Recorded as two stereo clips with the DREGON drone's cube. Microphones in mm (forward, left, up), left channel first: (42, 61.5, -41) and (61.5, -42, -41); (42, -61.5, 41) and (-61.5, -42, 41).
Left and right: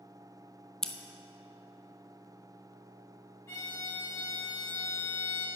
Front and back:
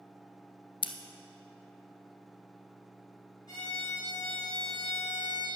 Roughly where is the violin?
Ahead left.